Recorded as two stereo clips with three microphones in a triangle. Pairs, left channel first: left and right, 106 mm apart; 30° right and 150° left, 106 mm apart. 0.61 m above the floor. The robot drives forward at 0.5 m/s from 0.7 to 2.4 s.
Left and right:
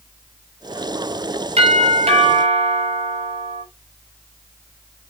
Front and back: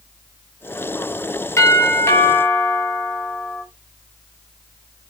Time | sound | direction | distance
1.6 | a doorbell | 90° right | 5 m